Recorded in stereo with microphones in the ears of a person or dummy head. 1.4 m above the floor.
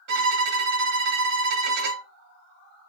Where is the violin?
65° right (ahead or behind), 1.7 m.